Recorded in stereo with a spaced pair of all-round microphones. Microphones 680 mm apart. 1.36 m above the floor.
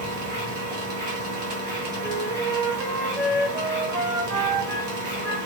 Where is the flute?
65° right (ahead or behind), 0.9 m.